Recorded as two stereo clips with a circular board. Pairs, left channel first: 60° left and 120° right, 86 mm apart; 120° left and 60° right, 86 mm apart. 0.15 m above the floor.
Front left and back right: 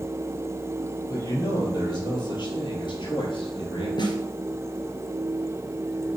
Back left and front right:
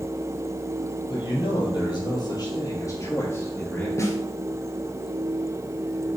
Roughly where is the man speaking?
Left.